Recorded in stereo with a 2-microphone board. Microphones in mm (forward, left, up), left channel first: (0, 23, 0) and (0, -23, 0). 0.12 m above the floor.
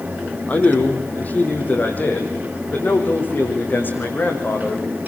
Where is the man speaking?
30° left (ahead or behind), 5 m; by 4.8 s 40° left (ahead or behind), 7.5 m.